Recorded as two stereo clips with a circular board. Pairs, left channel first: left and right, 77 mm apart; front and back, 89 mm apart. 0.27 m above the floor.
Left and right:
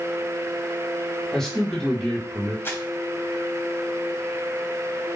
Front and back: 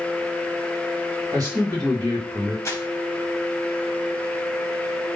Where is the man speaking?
170° left, 2.0 m.